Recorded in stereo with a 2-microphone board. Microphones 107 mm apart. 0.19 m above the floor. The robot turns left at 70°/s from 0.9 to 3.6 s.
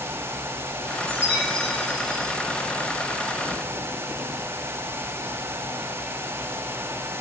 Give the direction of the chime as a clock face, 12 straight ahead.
5 o'clock.